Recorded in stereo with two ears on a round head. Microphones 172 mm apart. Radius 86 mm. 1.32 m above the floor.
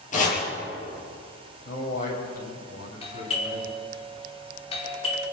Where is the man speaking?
45° left (ahead or behind), 6.5 m.